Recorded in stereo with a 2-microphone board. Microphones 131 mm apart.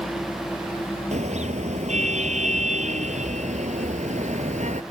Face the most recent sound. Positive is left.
turn(degrees=-65)  # may be behind; listen again after turning